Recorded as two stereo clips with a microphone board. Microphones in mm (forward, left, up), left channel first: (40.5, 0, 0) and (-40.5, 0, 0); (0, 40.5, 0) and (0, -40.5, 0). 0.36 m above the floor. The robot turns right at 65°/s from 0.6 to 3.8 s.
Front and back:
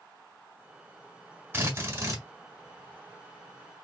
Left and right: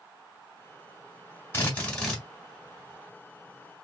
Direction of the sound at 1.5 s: 135° left.